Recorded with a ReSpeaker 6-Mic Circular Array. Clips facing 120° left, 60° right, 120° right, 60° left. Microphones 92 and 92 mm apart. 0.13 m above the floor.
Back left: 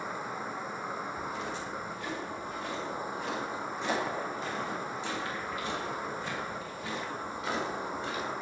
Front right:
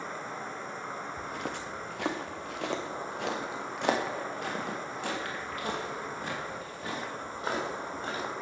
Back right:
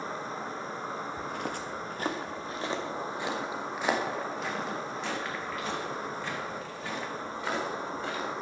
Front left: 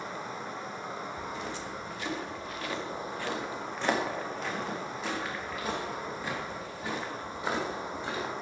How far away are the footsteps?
About 1.1 m.